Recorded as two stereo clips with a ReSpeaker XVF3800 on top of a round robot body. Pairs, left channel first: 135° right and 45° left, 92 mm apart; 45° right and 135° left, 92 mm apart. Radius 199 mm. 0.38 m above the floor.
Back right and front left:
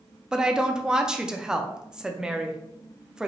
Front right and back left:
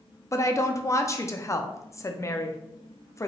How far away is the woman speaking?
About 0.8 m.